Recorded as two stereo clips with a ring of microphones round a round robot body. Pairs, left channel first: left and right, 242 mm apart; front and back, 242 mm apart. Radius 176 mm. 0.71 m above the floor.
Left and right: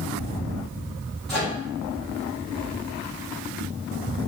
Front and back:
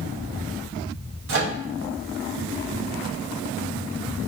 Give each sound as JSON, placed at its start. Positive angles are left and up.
{"t": 1.3, "sound": "a microwave", "azimuth_deg": 180, "distance_m": 0.6}